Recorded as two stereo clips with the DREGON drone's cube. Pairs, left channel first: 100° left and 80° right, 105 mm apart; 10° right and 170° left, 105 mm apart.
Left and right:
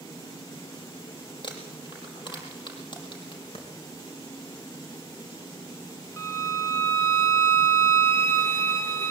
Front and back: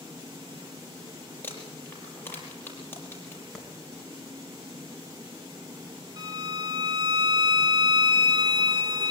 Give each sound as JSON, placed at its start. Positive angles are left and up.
{"t": 1.4, "sound": "crumpling", "azimuth_deg": 60, "distance_m": 5.5}
{"t": 3.5, "sound": "a clap", "azimuth_deg": 75, "distance_m": 3.5}
{"t": 6.2, "sound": "a violin", "azimuth_deg": 150, "distance_m": 1.9}